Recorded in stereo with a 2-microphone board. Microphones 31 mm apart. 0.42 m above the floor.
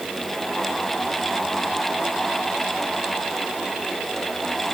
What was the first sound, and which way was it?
Only background noise.